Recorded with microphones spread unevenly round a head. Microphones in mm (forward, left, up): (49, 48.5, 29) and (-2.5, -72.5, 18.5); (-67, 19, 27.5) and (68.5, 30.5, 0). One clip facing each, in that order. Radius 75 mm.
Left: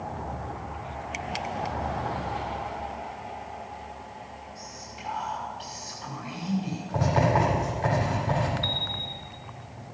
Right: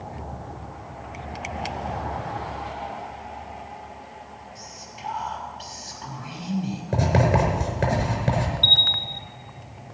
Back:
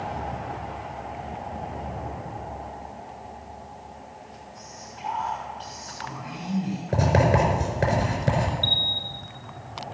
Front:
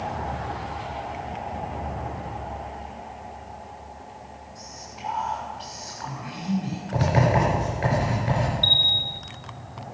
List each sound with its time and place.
4.5 s whispering: 85° right, 5.5 m
6.9 s writing: 140° right, 4.5 m
8.6 s a bell: 80° right, 0.7 m